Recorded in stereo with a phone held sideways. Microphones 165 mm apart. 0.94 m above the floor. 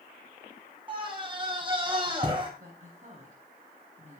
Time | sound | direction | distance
0.9 | a scream | 30° right (ahead or behind) | 6 m
2.6 | a woman speaking | 45° right (ahead or behind) | 9.5 m